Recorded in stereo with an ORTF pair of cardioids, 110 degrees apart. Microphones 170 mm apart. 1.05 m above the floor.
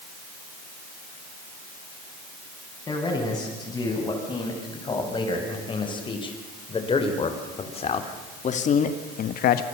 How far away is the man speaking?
About 9.5 m.